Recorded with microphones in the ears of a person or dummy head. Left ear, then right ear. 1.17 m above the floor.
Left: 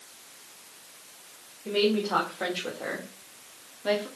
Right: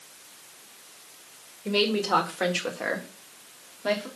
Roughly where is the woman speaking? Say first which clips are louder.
Right 1 dB; right.